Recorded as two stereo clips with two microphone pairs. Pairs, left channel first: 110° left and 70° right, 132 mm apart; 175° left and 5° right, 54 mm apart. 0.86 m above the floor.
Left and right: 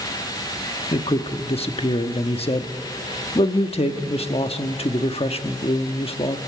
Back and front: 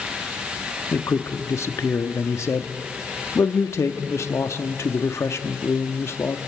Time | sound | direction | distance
0.9 | a man speaking | 150° left | 1.2 m